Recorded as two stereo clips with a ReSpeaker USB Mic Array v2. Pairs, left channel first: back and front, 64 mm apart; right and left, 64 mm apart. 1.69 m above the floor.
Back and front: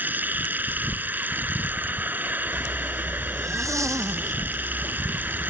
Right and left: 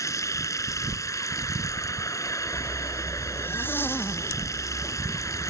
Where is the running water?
60° right.